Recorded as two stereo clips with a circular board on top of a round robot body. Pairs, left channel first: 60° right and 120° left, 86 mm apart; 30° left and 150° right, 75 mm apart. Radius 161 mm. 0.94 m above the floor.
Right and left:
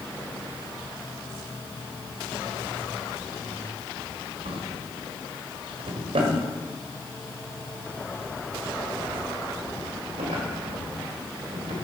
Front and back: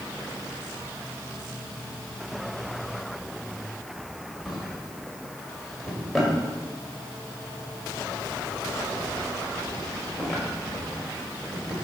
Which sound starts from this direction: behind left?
A drawer, at 4.5 s.